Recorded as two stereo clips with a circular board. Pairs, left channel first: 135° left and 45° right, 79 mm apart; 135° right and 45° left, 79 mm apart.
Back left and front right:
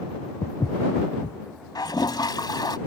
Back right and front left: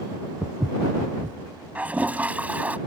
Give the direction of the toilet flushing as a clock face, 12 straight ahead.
8 o'clock.